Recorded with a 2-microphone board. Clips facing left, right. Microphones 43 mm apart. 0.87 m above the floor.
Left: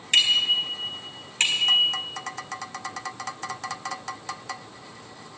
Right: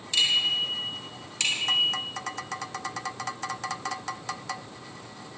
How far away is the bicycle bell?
About 4.5 m.